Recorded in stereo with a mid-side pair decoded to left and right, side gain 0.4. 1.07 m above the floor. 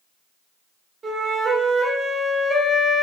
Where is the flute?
35° right, 1.8 m.